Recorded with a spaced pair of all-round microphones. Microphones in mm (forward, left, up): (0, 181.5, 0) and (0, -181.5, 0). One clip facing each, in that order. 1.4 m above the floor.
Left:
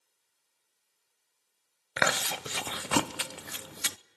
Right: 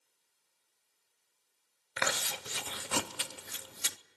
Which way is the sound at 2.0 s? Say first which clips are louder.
Left 6 dB; 75° left (ahead or behind).